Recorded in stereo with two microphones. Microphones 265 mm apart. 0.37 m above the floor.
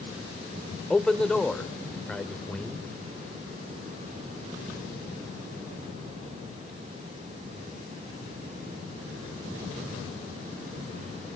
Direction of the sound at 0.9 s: 5° left (ahead or behind).